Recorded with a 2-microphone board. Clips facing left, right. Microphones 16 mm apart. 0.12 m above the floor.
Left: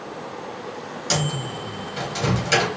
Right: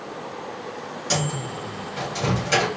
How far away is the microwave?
About 1.6 m.